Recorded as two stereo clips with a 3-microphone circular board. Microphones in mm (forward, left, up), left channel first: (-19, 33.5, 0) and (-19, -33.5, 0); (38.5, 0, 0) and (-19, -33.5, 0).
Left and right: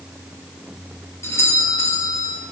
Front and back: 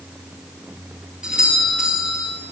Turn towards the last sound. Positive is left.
turn(degrees=135)